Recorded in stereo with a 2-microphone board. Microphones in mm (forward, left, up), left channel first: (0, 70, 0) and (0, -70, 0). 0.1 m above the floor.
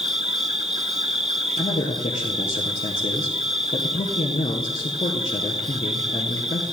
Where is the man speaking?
50° left (ahead or behind), 1.8 m.